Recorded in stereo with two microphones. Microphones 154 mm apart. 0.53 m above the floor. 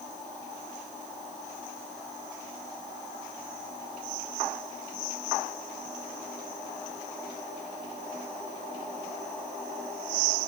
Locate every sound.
Only background noise.